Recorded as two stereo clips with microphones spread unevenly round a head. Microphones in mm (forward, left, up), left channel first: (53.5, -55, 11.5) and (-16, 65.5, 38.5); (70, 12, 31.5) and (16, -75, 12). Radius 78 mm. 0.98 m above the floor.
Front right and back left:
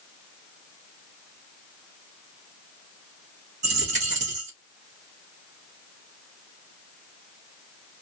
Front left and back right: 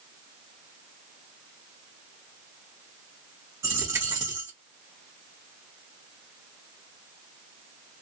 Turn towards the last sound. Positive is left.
turn(degrees=160)